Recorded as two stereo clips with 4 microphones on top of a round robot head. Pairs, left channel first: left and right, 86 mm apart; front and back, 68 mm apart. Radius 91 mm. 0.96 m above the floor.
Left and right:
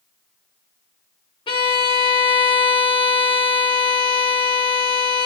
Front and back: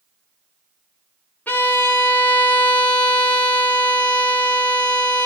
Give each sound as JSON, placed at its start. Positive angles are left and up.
{"t": 1.5, "sound": "a violin", "azimuth_deg": 65, "distance_m": 1.0}